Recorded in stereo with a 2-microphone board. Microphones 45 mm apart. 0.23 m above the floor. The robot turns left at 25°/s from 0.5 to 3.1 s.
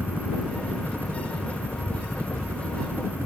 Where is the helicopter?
50° right; by 3.3 s 115° right.